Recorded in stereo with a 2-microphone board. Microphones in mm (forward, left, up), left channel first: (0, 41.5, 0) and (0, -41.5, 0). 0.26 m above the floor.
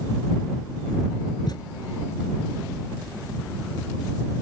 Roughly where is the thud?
Left.